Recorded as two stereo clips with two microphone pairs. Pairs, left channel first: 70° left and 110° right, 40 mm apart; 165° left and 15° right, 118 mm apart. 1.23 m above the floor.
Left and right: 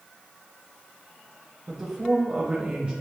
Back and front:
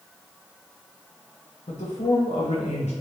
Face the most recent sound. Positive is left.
turn(degrees=-170)